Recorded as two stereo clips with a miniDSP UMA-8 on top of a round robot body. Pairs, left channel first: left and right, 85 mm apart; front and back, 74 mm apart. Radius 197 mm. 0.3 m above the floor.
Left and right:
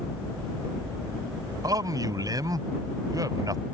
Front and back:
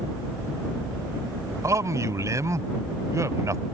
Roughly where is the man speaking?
Behind right.